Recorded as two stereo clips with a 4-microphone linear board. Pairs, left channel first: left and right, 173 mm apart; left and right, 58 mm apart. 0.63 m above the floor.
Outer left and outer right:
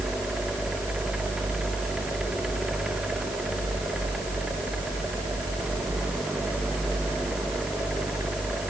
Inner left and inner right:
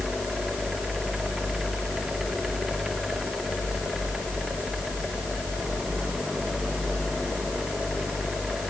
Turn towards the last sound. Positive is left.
No sound to turn to.